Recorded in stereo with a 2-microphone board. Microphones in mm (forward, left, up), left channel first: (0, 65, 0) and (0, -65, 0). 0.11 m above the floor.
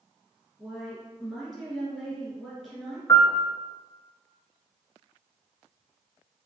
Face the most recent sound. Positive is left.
turn(degrees=25)  # may be behind; listen again after turning